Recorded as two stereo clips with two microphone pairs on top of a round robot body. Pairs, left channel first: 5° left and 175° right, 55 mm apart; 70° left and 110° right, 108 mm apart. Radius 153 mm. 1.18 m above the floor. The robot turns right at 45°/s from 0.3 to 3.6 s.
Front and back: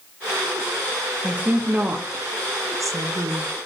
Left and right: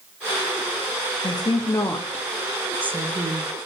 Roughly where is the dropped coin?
No dropped coin in this recording.